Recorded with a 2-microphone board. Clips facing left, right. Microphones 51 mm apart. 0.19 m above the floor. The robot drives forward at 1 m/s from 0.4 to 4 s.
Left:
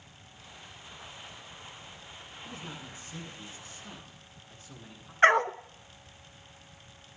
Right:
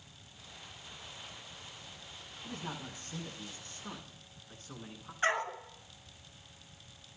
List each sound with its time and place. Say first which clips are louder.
2.4 s a man speaking: right 2 dB; 50° right (ahead or behind), 7.5 m; by 5.1 s 45° right (ahead or behind), 8.5 m
5.2 s a dog barking: left 10 dB; 65° left (ahead or behind), 0.6 m